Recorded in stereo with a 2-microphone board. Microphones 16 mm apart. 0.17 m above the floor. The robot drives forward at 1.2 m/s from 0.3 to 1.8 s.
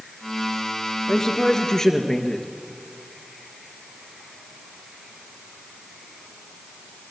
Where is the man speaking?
45° left (ahead or behind), 2.5 m; by 2.5 s 40° left (ahead or behind), 3 m.